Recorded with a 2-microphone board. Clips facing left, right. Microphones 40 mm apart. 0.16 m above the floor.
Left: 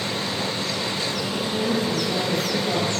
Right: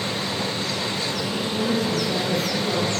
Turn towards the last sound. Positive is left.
turn(degrees=60)  # may be behind; listen again after turning